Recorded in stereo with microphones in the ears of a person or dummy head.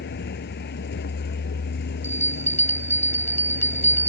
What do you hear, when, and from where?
0.0 s a vehicle: 55° left (ahead or behind)
2.0 s a bell: 10° left (ahead or behind)